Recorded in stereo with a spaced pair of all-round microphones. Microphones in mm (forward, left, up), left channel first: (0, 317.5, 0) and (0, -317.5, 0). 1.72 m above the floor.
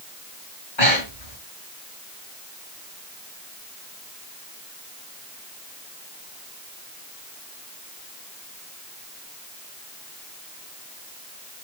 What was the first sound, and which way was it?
Breathing, 45° left (ahead or behind).